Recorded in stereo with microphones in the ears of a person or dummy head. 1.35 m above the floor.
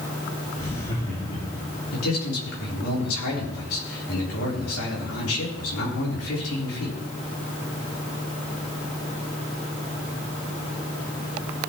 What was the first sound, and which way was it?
Laughter, 40° left (ahead or behind).